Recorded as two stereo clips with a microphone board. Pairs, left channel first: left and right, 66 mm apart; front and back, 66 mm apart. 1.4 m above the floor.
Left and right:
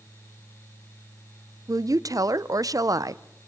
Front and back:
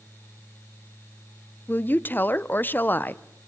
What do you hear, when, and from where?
1.7 s a woman speaking: 60° right, 0.7 m